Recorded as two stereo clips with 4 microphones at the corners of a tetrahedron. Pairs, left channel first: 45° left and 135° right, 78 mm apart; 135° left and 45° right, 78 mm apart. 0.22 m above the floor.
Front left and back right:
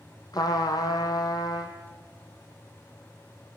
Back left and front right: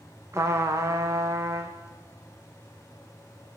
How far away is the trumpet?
About 2 m.